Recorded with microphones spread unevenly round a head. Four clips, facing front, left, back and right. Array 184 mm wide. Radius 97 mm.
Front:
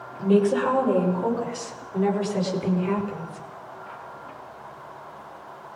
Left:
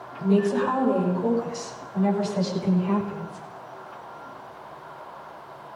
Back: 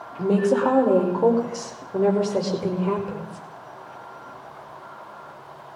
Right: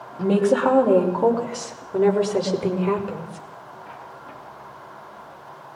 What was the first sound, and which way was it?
A woman speaking, 130° right.